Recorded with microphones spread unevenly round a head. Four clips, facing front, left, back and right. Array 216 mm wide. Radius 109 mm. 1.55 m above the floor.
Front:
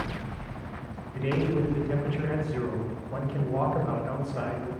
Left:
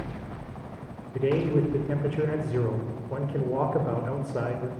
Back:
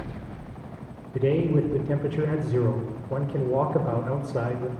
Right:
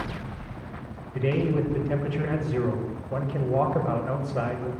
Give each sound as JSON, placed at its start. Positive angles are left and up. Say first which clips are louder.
{"t": 1.1, "sound": "a man speaking", "louder": "left 1 dB, back 5 dB", "azimuth_deg": 160, "distance_m": 6.0}